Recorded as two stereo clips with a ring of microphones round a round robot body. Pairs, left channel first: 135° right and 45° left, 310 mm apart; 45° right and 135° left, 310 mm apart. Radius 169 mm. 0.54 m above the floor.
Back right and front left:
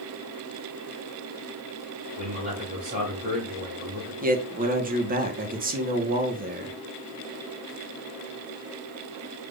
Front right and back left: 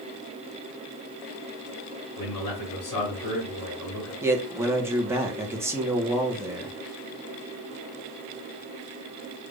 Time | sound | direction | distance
2.2 | a man speaking | 20° right | 2.5 m
4.2 | a man speaking | 60° left | 1.0 m